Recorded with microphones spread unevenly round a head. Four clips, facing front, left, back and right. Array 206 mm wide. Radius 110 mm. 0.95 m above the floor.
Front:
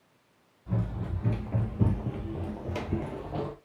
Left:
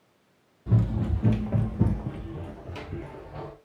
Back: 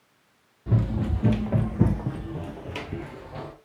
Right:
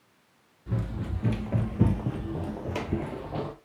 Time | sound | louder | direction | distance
0.7 | running footsteps | left 6 dB, back 7 dB | 140° left | 1.4 m